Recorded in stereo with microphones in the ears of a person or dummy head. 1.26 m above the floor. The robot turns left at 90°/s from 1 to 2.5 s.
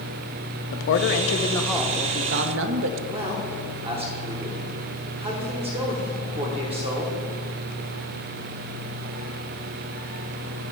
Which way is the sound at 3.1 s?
30° right (ahead or behind).